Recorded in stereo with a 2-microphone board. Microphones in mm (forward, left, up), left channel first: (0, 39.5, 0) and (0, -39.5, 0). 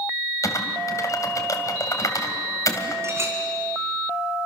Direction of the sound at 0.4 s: 40° left (ahead or behind).